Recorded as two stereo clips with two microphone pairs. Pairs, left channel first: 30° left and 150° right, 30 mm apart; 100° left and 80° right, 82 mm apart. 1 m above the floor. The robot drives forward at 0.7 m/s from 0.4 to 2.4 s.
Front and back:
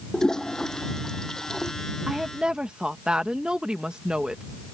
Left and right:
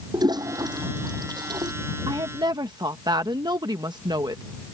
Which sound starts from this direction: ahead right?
A toilet flushing, at 0.1 s.